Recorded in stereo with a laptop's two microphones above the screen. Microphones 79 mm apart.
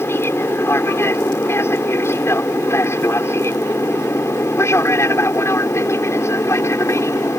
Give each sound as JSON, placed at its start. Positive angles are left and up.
{"t": 0.0, "sound": "an aircraft", "side_deg": 30}